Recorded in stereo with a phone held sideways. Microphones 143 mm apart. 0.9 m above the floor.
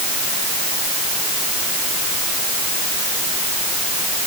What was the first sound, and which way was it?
Only background noise.